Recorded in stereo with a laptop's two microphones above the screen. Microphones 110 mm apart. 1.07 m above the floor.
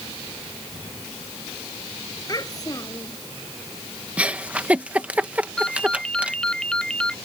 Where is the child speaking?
35° left (ahead or behind).